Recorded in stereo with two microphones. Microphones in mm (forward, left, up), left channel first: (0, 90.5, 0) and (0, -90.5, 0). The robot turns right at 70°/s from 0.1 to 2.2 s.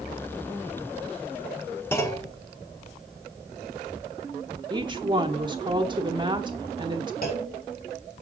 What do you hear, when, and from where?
1.9 s a clunk: 15° left (ahead or behind), 0.9 m
4.7 s a woman speaking: 25° right (ahead or behind), 1.0 m
7.2 s a clunk: 55° left (ahead or behind), 1.8 m